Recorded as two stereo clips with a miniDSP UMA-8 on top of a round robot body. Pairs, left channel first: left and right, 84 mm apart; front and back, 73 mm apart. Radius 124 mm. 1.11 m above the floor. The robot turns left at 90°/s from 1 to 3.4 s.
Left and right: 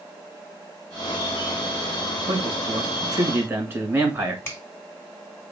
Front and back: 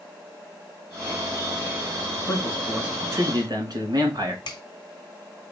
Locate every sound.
2.3 s a man speaking: 50° right, 2.5 m; by 4.3 s 150° right, 2.5 m
4.5 s a finger snap: 25° left, 1.5 m